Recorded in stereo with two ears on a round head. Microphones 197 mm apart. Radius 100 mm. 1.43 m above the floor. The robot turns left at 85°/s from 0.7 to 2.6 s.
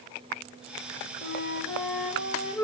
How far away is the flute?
About 1.0 m.